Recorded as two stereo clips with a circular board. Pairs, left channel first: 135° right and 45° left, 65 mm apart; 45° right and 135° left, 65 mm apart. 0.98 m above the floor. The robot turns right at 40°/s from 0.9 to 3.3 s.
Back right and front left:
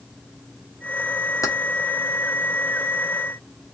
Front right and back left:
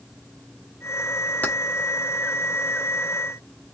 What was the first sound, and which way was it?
Keys jangling, 110° right.